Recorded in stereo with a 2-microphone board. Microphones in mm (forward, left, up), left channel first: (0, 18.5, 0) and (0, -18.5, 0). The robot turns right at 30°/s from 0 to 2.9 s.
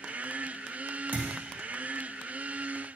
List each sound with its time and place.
1.1 s a thud: 60° right (ahead or behind), 3 m